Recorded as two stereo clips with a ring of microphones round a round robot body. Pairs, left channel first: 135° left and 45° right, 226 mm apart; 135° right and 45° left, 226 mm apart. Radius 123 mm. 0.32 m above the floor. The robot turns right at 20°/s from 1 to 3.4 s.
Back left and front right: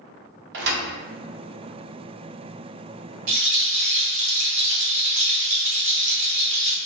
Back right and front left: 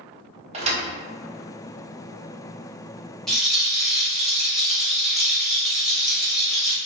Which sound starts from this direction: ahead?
A thud, at 0.5 s.